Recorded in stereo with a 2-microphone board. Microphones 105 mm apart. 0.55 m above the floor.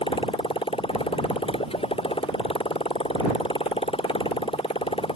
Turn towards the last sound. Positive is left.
turn(degrees=65)  # may be behind; listen again after turning